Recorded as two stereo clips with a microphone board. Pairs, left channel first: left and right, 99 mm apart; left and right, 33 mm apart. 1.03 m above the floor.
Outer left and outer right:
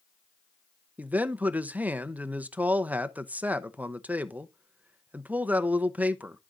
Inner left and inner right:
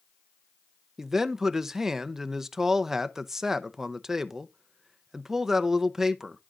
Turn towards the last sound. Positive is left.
turn(degrees=-15)  # may be behind; listen again after turning